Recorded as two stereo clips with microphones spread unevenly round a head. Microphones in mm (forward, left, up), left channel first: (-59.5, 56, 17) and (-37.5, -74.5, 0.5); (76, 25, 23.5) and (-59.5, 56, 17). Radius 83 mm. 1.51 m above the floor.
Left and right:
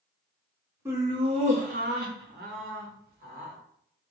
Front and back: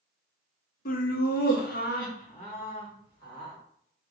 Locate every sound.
0.8 s laughter: straight ahead, 0.7 m; by 3.6 s 80° right, 1.4 m